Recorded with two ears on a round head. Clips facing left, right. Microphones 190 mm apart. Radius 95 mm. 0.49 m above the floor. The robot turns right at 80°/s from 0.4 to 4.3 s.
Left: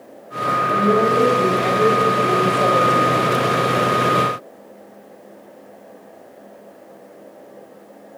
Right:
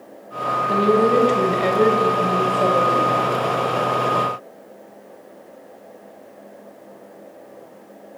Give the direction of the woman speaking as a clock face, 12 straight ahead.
5 o'clock.